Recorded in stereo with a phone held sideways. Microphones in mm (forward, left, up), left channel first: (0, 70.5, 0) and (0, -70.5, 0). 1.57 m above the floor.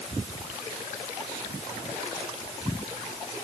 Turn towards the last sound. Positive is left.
No sound to turn to.